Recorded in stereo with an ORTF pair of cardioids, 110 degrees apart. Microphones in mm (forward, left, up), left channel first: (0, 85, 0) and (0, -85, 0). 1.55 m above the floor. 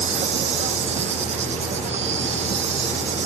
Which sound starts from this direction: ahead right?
An insect, at 0.0 s.